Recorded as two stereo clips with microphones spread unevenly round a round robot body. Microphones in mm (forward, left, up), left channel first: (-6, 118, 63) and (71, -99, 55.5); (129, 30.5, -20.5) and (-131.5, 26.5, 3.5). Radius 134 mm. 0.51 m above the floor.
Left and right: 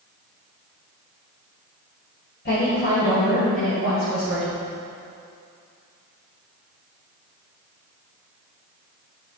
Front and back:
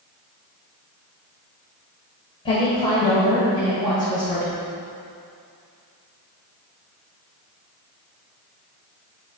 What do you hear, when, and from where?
2.5 s a woman speaking: 70° left, 2 m; by 4.5 s 80° left, 4 m